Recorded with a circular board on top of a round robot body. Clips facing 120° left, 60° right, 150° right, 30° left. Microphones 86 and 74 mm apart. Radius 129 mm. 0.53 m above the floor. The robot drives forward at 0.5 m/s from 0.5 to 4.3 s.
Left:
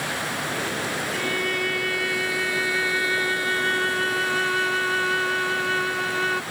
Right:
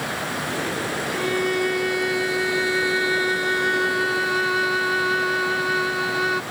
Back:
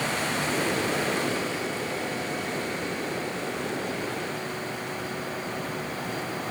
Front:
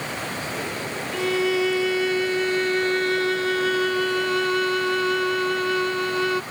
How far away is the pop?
No pop in this recording.